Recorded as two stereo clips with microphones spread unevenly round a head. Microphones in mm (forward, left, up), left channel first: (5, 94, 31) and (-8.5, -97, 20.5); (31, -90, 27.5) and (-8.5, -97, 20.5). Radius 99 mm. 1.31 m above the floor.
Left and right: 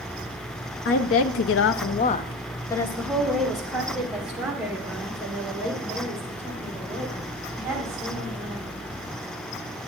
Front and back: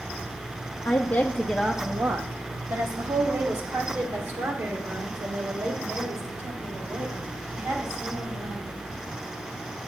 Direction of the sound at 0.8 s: 65° left.